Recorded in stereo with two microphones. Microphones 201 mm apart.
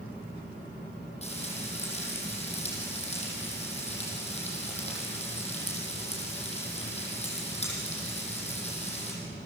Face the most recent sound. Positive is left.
turn(degrees=30)  # may be behind; listen again after turning